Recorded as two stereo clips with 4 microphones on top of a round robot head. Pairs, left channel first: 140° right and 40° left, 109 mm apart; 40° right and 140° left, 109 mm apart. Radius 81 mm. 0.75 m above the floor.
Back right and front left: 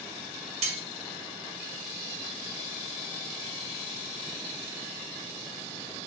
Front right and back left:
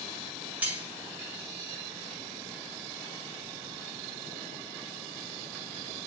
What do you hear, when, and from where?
0.6 s cutlery clinking: 65° left, 2.5 m